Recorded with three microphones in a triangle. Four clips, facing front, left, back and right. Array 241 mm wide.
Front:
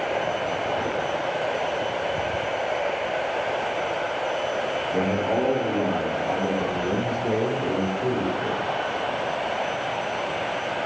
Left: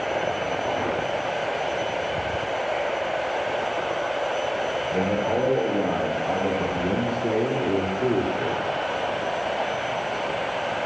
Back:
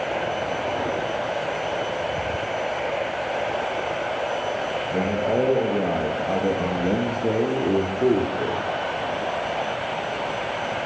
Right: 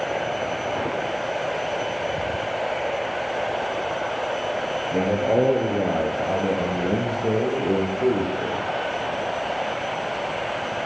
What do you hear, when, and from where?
4.9 s a man speaking: 110° right, 3.5 m; by 8.7 s 160° right, 4 m